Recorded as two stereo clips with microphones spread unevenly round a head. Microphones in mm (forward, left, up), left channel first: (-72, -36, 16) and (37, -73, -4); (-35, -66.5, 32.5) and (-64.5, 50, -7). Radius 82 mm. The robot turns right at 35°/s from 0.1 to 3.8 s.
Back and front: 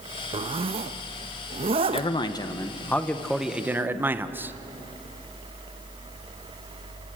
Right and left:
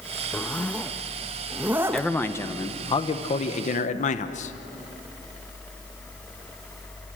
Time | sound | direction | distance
0.3 | a zipper | 45° right | 0.7 m
1.9 | a man speaking | 160° right | 1.2 m